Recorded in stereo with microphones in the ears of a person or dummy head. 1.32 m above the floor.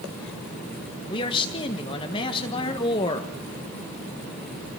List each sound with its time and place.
1.1 s a man speaking: 25° left (ahead or behind), 1.6 m